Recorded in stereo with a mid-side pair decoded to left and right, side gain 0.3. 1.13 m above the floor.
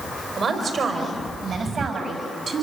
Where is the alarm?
No alarm in this recording.